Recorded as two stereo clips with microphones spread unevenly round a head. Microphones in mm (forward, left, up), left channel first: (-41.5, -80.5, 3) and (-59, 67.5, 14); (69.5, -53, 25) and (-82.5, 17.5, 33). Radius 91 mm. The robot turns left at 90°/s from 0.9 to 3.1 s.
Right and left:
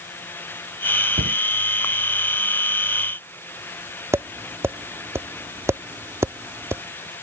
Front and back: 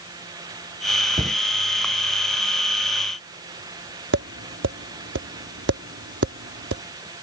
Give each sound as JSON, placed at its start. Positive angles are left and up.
{"t": 1.2, "sound": "a cupboard door", "azimuth_deg": 95}
{"t": 4.1, "sound": "tapping", "azimuth_deg": 170}